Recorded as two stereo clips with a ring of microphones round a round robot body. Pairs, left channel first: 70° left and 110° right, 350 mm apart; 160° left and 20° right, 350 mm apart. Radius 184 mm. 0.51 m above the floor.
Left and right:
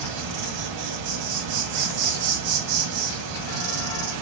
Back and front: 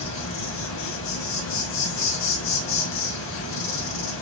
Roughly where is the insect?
Behind right.